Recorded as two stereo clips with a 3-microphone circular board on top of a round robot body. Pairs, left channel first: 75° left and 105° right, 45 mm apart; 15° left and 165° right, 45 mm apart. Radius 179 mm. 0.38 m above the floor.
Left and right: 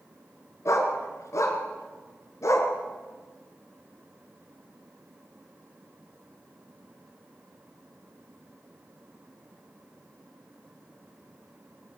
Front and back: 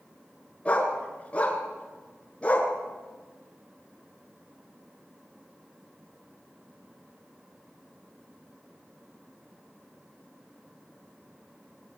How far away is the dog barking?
About 4 m.